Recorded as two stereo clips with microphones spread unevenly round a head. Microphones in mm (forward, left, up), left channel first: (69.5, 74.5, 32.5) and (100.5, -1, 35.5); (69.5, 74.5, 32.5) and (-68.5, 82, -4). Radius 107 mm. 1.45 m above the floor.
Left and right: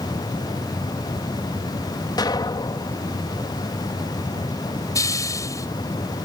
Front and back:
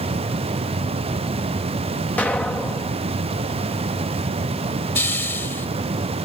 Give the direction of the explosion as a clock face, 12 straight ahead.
9 o'clock.